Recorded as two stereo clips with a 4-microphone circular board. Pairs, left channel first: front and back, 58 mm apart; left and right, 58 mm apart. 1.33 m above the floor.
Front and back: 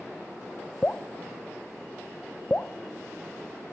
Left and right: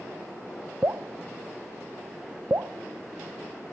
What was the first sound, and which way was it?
Dripping, 60° right.